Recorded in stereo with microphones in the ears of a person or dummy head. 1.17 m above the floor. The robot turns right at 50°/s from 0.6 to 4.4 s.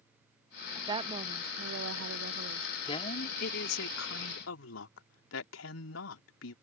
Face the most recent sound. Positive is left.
turn(degrees=100)